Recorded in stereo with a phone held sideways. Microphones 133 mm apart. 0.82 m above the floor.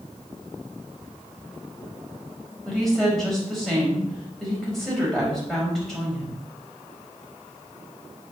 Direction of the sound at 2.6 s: 5° left (ahead or behind).